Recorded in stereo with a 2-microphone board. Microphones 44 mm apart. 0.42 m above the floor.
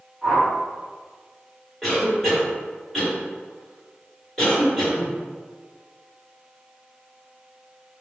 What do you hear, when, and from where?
0.2 s a whoosh: 10° left (ahead or behind), 1.9 m
1.8 s a cough: 5° left (ahead or behind), 1.8 m